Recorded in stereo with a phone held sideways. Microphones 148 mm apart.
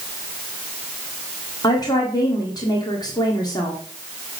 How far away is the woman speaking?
About 1.7 m.